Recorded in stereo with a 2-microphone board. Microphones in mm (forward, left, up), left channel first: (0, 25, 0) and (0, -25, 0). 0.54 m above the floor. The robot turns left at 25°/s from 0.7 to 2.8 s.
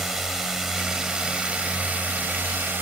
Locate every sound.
0.0 s a drone: 10° right; by 2.8 s 60° right